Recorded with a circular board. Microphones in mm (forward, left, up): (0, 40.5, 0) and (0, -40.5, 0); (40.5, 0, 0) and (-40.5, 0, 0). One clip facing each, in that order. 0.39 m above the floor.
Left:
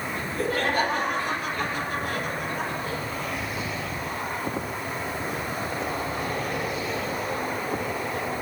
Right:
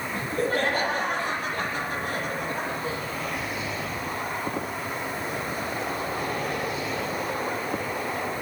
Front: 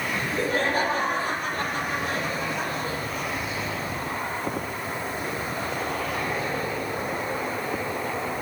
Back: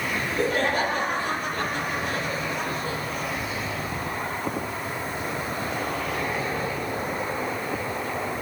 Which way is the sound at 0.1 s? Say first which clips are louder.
Right 2 dB, back 1 dB; 50° right.